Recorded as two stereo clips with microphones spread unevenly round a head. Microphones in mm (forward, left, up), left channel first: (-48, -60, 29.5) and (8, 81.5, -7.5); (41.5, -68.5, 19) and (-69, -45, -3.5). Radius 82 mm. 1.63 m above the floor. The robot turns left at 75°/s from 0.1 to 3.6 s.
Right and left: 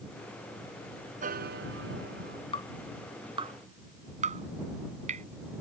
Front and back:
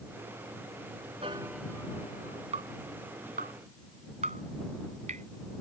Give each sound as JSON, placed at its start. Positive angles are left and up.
{"t": 1.2, "sound": "a piano", "azimuth_deg": 105}
{"t": 2.5, "sound": "dripping", "azimuth_deg": -165}